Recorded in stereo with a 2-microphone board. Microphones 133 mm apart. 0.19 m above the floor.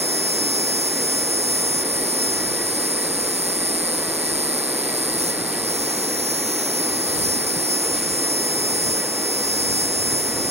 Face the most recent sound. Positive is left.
turn(degrees=-50)  # may be behind; listen again after turning